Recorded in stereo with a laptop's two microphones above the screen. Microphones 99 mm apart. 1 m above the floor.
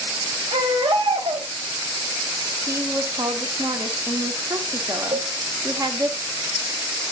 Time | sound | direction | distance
0.5 | a baby crying | 70° right (ahead or behind) | 3 m
2.7 | a woman speaking | 35° right (ahead or behind) | 1.1 m
5.1 | a cowbell | 50° right (ahead or behind) | 1.2 m